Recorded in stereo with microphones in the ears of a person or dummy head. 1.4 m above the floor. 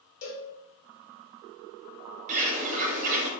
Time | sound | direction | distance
0.2 | a cowbell | 50° left (ahead or behind) | 1.1 m
2.3 | a bird | 35° right (ahead or behind) | 0.7 m